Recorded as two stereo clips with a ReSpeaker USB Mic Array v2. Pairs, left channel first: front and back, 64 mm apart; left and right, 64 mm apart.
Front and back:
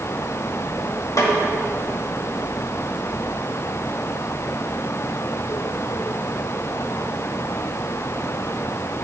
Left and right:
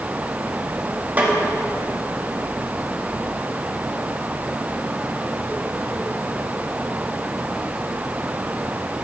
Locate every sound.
1.2 s a snare drum: 30° right, 1.5 m